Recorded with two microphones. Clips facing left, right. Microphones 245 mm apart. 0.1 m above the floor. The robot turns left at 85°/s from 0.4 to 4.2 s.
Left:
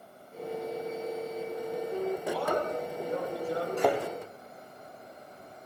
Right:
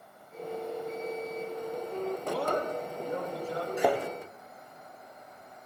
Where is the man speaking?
90° right, 7 m; by 3.7 s 150° left, 7 m.